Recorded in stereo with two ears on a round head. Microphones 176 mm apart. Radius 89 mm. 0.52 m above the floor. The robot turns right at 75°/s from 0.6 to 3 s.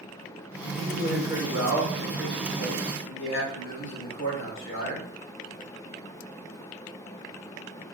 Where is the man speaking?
85° right, 2.5 m; by 5.1 s 85° left, 2.5 m.